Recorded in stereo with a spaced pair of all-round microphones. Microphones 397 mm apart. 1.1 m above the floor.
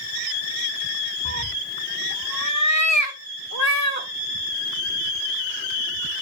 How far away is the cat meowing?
About 0.6 m.